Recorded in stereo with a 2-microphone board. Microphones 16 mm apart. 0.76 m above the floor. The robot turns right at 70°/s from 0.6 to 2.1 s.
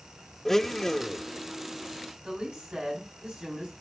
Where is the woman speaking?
65° right (ahead or behind), 6 m.